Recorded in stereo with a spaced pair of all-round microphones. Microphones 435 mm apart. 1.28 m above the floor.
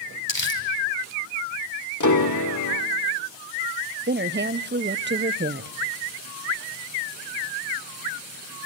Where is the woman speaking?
25° right (ahead or behind), 0.7 m.